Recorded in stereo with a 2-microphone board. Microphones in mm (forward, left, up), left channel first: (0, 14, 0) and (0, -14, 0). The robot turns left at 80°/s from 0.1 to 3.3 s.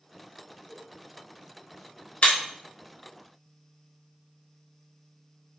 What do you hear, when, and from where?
0.7 s a whoosh: 25° left (ahead or behind), 0.9 m; by 0.9 s 5° left (ahead or behind), 0.9 m
2.2 s breaking glass: 55° left (ahead or behind), 0.8 m; by 2.4 s 60° left (ahead or behind), 0.8 m